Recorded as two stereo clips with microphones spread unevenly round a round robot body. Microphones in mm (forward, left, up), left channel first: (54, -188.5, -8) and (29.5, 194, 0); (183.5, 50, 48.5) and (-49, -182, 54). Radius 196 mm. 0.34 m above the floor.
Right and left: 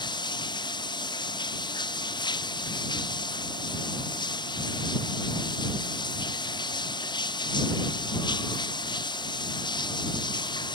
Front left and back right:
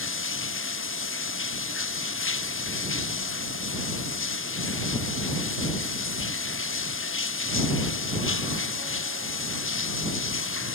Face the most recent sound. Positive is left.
turn(degrees=-5)